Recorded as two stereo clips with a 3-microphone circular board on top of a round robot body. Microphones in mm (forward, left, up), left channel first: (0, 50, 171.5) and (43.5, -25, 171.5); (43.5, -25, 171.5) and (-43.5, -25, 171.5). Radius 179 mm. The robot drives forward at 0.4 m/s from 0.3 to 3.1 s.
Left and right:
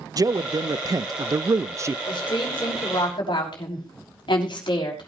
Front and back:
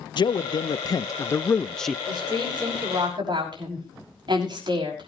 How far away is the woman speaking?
About 5.5 m.